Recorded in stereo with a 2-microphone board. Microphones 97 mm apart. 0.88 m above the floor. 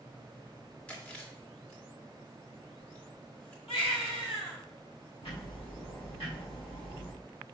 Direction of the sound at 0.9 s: 20° left (ahead or behind).